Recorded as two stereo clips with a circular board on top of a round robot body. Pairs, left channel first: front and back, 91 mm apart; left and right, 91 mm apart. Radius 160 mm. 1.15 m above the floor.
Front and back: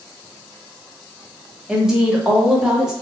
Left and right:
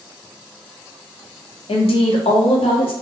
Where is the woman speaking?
95° left, 0.7 m.